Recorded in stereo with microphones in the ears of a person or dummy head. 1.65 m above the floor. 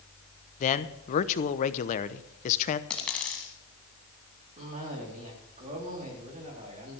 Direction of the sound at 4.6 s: 40° right (ahead or behind).